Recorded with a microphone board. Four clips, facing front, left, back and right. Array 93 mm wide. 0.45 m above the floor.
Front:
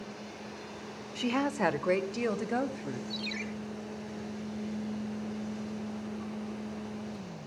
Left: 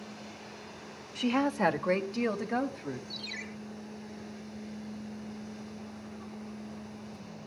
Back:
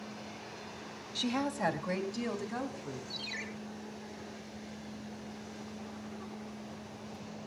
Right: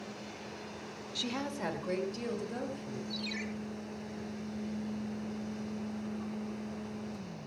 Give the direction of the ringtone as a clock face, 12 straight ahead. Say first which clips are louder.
Right 4 dB, front 6 dB; 1 o'clock.